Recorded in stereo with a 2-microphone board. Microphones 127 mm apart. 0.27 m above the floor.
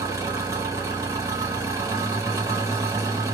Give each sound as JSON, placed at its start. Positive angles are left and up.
{"t": 0.0, "sound": "an engine running", "side_deg": -25, "distance_m": 1.9}